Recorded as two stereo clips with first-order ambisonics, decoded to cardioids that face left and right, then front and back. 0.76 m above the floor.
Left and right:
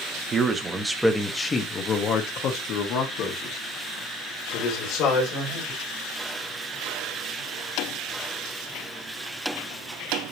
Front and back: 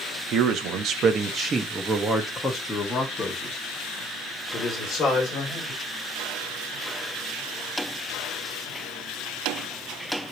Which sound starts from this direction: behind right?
A man speaking, at 0.3 s.